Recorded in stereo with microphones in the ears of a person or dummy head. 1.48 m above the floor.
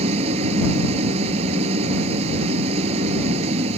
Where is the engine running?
40° right (ahead or behind).